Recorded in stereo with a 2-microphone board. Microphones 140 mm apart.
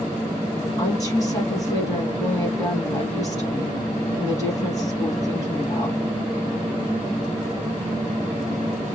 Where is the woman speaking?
25° left (ahead or behind), 3 m.